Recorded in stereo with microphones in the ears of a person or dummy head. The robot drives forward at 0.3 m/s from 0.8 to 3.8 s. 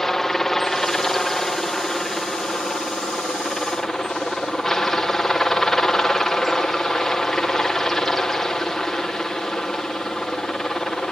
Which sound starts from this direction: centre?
A helicopter, at 0.0 s.